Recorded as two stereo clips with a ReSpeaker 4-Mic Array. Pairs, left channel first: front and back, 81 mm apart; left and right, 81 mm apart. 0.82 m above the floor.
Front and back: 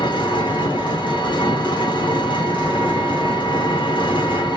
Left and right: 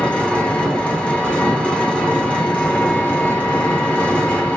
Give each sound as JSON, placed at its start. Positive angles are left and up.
{"t": 0.0, "sound": "an engine running", "azimuth_deg": 10, "distance_m": 0.7}